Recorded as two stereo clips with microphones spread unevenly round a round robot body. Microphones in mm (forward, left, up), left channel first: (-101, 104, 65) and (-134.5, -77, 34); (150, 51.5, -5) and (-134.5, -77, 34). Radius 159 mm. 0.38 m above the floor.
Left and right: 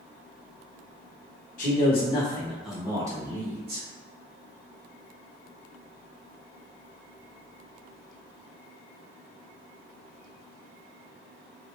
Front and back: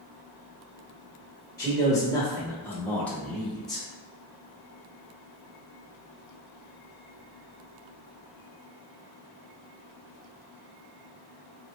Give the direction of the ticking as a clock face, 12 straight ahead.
I don't hear ticking.